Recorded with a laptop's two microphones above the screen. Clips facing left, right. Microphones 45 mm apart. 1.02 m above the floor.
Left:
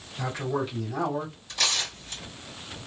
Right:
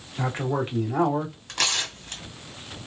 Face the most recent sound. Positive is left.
turn(degrees=-65)  # may be behind; listen again after turning